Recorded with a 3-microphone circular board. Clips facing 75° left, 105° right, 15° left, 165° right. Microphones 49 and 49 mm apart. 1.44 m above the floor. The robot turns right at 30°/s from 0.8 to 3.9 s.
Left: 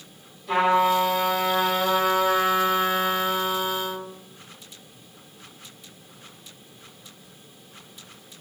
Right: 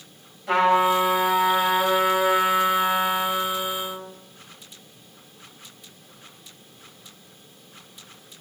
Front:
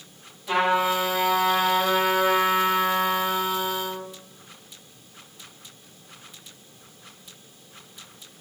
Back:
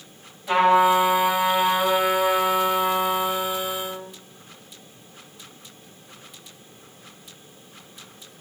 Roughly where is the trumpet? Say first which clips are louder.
Right 1 dB, back 5 dB; right.